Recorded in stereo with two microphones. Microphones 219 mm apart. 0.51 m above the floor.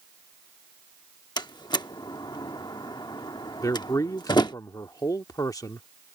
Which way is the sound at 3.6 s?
15° left (ahead or behind).